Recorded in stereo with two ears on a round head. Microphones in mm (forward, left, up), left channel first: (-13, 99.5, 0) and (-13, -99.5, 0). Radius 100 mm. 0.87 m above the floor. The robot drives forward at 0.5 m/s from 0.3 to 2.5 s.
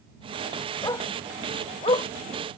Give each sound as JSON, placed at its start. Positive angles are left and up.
{"t": 0.8, "sound": "a dog barking", "side_deg": 15}